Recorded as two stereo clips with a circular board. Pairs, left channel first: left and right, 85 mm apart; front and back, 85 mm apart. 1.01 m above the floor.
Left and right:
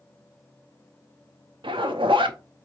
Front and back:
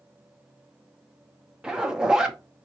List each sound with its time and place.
1.6 s a zipper: 100° right, 0.7 m